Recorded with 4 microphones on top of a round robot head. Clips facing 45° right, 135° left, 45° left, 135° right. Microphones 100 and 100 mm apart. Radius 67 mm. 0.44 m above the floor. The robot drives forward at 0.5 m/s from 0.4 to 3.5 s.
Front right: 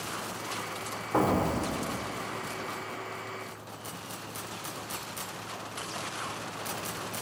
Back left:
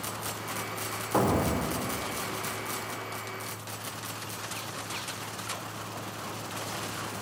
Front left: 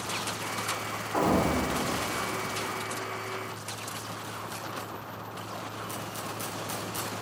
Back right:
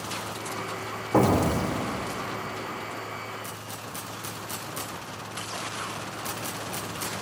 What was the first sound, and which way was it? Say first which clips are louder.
An explosion: even, back right 3 dB; 135° right.